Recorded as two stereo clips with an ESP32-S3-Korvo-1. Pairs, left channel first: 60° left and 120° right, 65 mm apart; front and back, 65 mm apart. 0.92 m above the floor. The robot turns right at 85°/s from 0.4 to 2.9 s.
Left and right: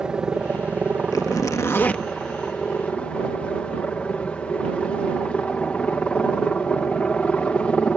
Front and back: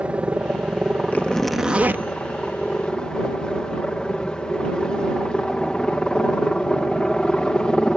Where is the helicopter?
170° right; by 8.0 s 45° left.